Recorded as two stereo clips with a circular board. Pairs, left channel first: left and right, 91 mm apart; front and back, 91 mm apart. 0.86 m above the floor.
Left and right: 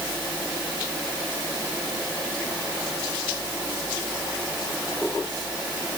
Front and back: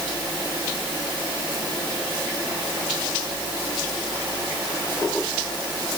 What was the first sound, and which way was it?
Only background noise.